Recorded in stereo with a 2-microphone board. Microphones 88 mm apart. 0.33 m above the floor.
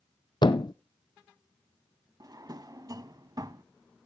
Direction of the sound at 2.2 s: 45° right (ahead or behind).